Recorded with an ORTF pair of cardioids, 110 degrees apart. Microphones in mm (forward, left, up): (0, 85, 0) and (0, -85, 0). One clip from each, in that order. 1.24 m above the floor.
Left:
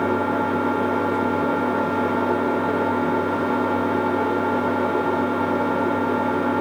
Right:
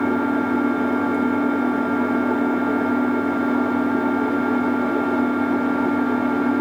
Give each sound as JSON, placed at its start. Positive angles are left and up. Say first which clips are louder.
{"t": 0.0, "sound": "an engine running", "louder": "even", "azimuth_deg": -45, "distance_m": 2.5}